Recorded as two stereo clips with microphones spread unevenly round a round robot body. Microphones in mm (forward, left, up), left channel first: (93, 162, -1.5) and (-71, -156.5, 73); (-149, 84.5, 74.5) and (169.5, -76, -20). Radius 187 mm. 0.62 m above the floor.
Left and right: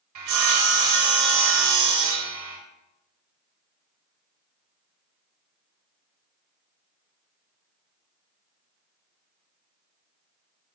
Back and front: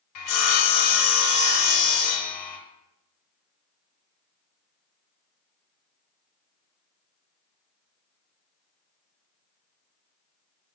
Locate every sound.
0.1 s sawing: 165° right, 1.5 m